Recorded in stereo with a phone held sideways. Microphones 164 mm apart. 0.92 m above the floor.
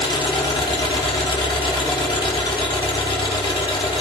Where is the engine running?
30° left (ahead or behind), 3.5 m.